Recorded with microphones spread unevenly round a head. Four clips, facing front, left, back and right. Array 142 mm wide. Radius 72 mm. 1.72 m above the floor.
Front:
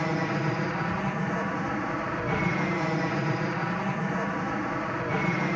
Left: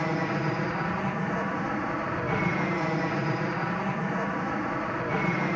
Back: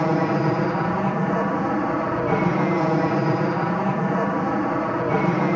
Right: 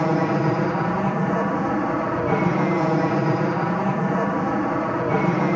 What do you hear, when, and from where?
0.0 s an aircraft: 135° right